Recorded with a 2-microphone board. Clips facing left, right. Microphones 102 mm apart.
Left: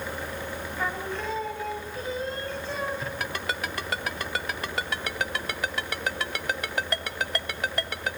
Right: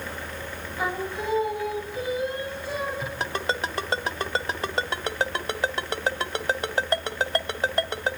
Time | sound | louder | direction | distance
0.8 | singing | right 3 dB | 10° right (ahead or behind) | 3.5 m
3.2 | a ringtone | right 4 dB | 30° right (ahead or behind) | 1.4 m